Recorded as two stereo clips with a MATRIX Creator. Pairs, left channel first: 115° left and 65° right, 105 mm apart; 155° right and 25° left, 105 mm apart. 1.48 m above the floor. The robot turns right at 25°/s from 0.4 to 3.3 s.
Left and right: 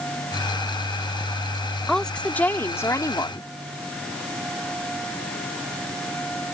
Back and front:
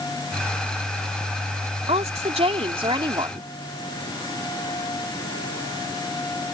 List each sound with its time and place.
1.9 s a woman speaking: 25° left; by 3.5 s 60° left